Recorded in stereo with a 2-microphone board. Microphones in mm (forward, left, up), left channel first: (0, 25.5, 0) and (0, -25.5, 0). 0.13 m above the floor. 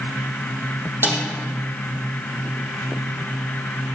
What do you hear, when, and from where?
1.0 s a snare drum: 50° right (ahead or behind), 3.5 m